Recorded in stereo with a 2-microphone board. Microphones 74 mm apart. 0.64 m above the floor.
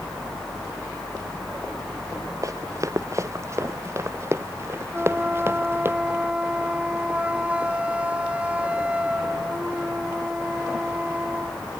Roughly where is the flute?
Centre.